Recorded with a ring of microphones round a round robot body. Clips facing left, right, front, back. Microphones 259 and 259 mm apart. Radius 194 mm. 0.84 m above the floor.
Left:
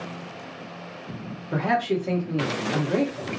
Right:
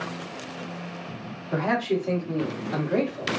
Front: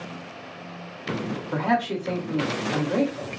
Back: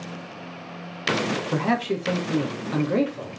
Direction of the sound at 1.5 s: 155° left.